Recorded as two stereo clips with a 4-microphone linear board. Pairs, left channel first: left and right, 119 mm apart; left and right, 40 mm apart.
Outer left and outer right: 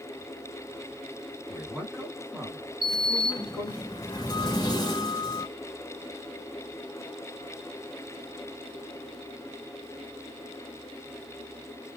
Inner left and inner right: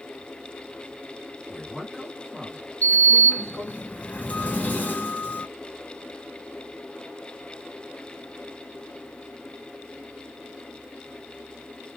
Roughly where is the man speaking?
Centre.